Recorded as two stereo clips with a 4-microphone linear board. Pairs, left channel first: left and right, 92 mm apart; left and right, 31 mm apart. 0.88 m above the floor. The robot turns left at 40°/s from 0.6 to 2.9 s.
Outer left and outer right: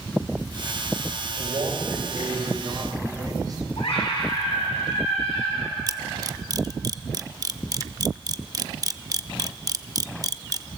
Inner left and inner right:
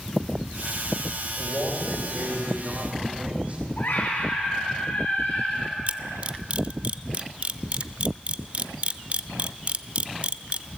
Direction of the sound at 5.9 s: 40° right (ahead or behind).